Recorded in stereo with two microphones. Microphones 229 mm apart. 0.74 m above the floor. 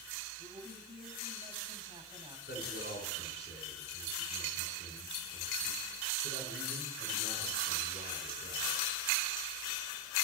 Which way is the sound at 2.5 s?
50° left (ahead or behind).